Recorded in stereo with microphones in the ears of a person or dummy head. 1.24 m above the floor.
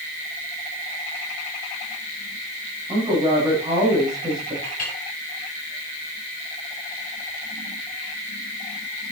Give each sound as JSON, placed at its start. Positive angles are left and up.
{"t": 2.9, "sound": "a woman speaking", "side_deg": -20, "distance_m": 7.0}
{"t": 4.6, "sound": "a clink", "side_deg": 50, "distance_m": 6.0}